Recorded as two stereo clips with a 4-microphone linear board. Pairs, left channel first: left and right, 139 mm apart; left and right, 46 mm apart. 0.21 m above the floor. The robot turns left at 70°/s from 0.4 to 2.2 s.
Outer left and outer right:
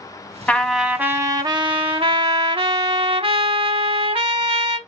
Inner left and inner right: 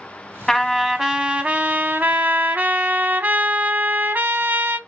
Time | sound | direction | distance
0.5 | a trumpet | 15° left | 0.6 m